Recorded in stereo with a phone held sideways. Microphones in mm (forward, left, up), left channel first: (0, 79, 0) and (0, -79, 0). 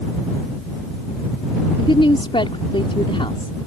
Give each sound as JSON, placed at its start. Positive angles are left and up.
{"t": 1.8, "sound": "a woman speaking", "side_deg": 35}